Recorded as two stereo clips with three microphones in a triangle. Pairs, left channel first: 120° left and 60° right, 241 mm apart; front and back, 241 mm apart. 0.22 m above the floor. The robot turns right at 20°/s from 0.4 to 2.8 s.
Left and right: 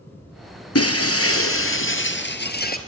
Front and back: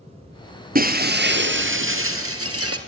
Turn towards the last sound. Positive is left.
turn(degrees=170)